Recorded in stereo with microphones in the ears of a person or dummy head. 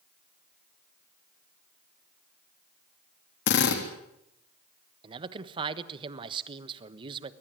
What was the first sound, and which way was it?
A drill, 60° left (ahead or behind).